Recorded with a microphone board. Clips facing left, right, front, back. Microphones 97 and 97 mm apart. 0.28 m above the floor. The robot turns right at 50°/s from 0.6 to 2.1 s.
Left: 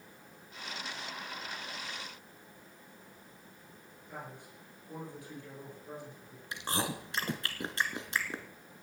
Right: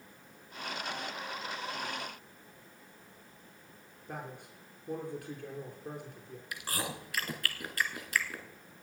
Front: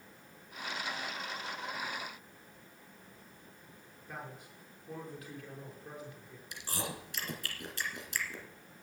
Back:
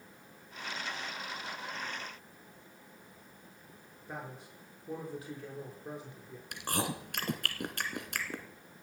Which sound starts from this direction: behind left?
Chewing, at 6.5 s.